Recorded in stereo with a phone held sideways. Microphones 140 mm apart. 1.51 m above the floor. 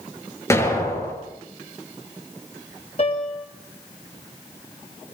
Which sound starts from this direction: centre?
An explosion, at 0.5 s.